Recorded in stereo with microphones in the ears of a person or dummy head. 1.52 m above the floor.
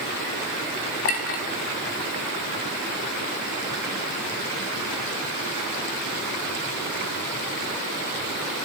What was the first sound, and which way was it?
A clink, 35° left (ahead or behind).